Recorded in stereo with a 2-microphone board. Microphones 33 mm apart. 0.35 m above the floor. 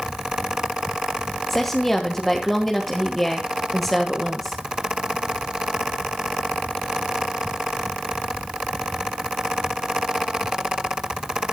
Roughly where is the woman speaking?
Centre.